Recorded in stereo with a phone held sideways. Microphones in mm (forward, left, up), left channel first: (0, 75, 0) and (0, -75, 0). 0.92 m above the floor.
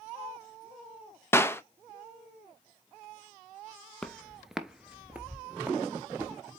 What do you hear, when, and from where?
1.3 s a clap: 15° left (ahead or behind), 0.7 m
4.0 s footsteps: 5° left (ahead or behind), 0.9 m; by 6.3 s 15° right (ahead or behind), 1.7 m